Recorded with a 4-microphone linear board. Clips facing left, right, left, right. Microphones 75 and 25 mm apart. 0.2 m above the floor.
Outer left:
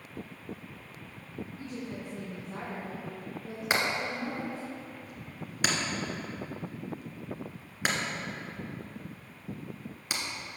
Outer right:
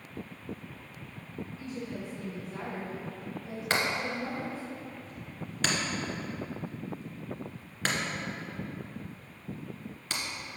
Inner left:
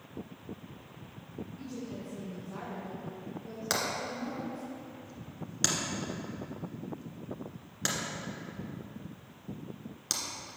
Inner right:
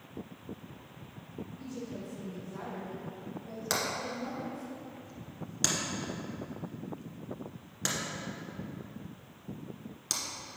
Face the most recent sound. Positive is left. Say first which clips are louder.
# even, even
turn(degrees=10)  # may be behind; listen again after turning